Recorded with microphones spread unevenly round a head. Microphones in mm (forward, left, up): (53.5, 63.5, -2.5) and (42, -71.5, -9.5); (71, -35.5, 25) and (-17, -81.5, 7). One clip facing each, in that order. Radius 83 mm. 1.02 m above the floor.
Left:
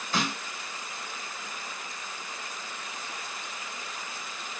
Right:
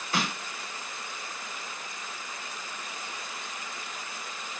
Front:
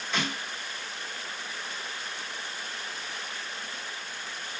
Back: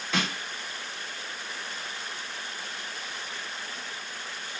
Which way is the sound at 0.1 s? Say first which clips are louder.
Left 1 dB, back 2 dB; 175° right.